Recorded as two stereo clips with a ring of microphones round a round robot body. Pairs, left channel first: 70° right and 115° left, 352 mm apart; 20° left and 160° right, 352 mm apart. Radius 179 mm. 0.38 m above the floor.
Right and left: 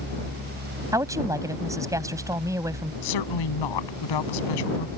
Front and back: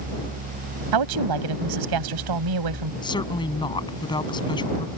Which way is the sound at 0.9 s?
165° right.